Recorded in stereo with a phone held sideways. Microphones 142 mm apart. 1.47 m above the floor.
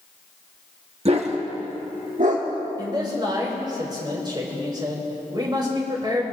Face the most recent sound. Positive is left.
turn(degrees=-30)  # may be behind; listen again after turning